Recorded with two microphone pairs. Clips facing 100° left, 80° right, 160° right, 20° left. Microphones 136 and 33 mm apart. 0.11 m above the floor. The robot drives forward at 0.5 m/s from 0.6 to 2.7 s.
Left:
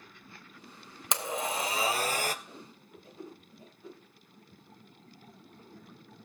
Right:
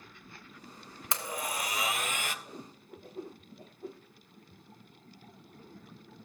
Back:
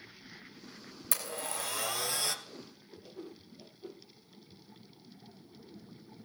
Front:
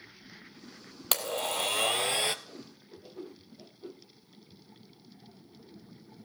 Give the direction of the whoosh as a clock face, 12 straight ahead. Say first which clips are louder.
Right 3 dB, front 1 dB; 2 o'clock.